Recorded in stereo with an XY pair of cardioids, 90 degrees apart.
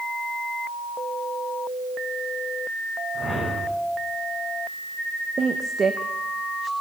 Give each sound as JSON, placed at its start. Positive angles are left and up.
{"t": 3.1, "sound": "a whoosh", "azimuth_deg": 5, "distance_m": 8.5}
{"t": 5.4, "sound": "a woman speaking", "azimuth_deg": -40, "distance_m": 0.9}